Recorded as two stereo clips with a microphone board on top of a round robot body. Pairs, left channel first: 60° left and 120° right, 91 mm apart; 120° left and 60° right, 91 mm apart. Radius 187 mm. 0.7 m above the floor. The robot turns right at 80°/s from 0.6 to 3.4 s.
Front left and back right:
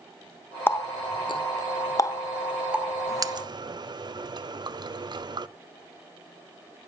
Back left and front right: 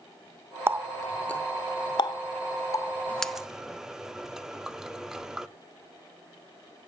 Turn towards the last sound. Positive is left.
turn(degrees=-145)